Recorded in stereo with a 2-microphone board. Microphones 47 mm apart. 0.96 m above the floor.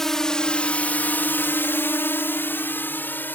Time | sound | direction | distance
0.0 | a drone | 10° left (ahead or behind) | ?